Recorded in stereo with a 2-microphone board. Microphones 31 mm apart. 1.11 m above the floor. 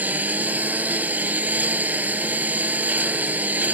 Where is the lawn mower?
55° right (ahead or behind).